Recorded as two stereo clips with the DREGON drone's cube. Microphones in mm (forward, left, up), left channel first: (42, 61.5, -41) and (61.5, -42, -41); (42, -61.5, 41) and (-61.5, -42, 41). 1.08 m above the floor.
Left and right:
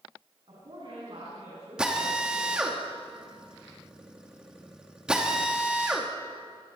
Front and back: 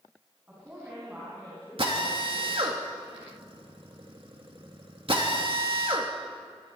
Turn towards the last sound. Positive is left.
turn(degrees=-160)